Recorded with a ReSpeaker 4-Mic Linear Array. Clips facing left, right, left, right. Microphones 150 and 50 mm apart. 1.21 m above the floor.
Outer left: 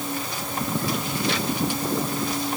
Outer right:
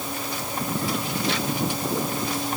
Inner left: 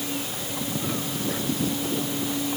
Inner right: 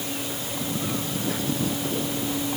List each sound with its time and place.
Only background noise.